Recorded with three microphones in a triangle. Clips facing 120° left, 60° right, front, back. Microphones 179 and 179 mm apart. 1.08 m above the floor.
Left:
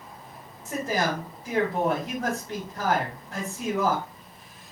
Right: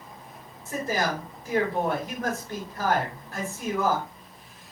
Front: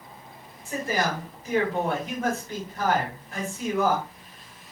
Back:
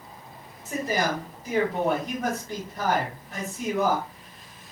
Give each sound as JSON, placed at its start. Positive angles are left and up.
{"t": 0.7, "sound": "a man speaking", "azimuth_deg": 125, "distance_m": 1.8}